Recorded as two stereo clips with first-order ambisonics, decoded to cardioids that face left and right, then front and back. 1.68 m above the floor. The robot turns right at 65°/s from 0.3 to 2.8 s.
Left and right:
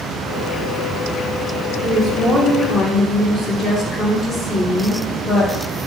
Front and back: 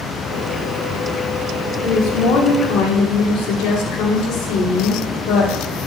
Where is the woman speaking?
35° right, 2 m; by 5.6 s 30° left, 2 m.